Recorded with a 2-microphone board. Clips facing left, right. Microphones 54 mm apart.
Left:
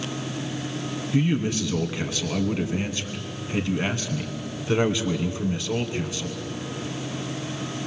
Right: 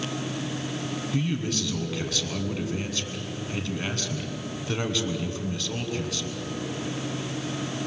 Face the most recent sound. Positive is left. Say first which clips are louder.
# left 6 dB
turn(degrees=20)  # may be behind; listen again after turning